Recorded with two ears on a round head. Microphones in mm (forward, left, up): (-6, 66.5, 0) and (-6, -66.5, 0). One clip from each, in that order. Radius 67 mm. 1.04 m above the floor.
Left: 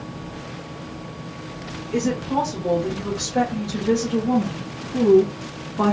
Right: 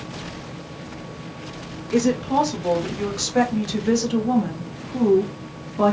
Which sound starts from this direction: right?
A woman speaking, at 1.9 s.